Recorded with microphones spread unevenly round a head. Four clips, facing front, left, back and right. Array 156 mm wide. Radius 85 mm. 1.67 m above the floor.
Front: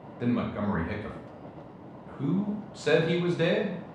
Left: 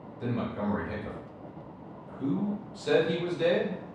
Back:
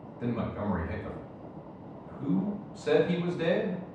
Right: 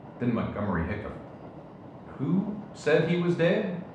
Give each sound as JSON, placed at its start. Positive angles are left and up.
{"t": 0.2, "sound": "a man speaking", "azimuth_deg": -55, "distance_m": 0.7}